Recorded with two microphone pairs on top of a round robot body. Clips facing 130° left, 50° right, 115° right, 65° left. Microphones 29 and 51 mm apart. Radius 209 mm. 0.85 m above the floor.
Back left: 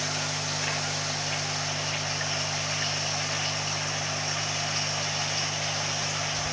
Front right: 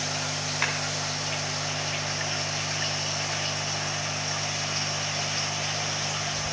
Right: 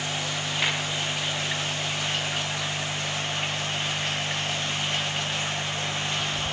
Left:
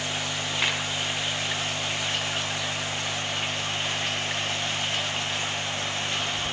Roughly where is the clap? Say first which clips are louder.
Front right 6 dB, even; ahead.